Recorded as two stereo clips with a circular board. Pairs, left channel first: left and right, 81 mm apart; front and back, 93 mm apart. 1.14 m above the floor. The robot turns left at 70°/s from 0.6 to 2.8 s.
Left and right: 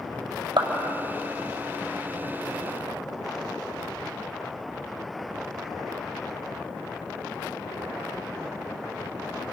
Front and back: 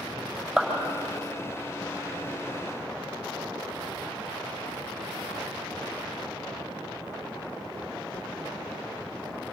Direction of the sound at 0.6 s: 90° right.